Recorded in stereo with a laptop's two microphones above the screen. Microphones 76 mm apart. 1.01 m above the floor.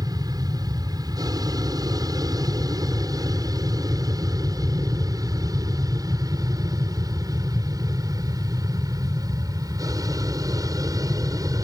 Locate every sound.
0.0 s an aircraft: 60° right (ahead or behind); by 11.7 s 55° right (ahead or behind)